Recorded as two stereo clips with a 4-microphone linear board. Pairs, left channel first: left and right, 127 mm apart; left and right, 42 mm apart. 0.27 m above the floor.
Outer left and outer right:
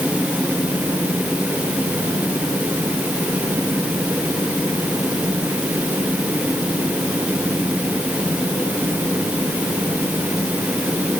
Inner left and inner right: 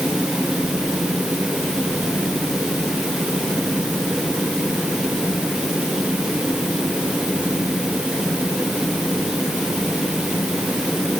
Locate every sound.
Only background noise.